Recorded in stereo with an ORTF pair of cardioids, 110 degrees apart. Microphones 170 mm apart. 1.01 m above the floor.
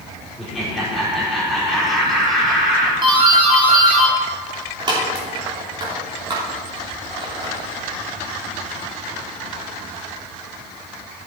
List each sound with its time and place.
0.4 s laughter: straight ahead, 3.5 m
3.0 s a doorbell: 30° right, 3 m